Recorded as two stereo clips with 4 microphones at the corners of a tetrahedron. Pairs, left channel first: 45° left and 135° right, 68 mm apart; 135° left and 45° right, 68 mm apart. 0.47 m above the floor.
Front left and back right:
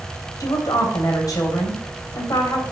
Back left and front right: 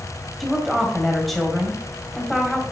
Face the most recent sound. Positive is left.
turn(degrees=50)